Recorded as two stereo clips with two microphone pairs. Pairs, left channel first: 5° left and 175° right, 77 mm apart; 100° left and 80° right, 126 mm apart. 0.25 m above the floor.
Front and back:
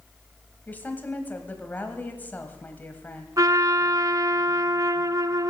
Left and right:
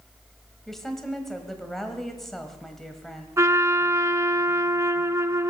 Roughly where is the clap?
I don't hear a clap.